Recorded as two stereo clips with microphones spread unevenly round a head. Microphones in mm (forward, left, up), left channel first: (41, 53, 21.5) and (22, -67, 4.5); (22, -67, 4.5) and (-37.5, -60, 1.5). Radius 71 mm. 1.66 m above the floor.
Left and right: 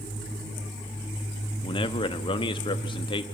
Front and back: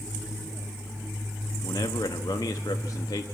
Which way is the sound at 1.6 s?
35° left.